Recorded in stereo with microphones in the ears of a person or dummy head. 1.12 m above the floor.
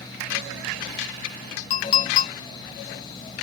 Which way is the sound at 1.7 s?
40° left (ahead or behind).